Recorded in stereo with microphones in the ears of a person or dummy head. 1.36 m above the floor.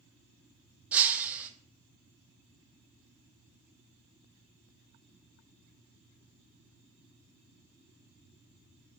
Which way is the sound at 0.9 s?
10° right (ahead or behind).